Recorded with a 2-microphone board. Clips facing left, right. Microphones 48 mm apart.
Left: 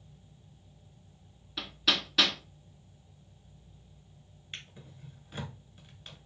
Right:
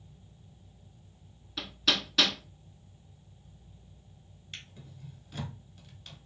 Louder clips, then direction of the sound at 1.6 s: Even; 5° left (ahead or behind).